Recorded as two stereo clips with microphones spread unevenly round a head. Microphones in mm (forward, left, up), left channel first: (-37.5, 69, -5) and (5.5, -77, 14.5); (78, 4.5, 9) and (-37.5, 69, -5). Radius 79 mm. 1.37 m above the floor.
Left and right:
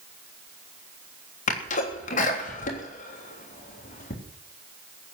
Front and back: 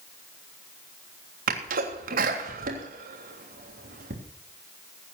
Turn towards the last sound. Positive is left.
turn(degrees=145)